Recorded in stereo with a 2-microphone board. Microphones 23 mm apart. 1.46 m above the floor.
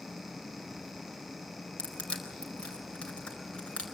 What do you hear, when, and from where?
1.8 s crushing: 45° left (ahead or behind), 4 m